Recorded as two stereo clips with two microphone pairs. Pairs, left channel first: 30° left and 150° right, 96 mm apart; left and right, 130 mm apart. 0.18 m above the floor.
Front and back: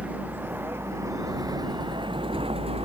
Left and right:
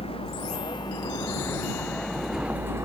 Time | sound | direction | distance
0.0 | a vehicle | 135° left | ?